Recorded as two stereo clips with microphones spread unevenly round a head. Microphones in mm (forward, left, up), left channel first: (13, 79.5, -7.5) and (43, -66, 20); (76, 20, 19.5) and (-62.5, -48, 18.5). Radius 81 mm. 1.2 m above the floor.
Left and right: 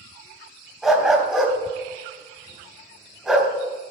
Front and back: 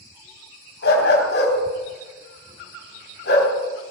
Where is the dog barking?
5° left, 3 m.